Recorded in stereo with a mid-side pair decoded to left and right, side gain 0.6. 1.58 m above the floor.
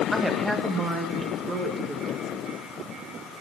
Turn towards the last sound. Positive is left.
turn(degrees=-35)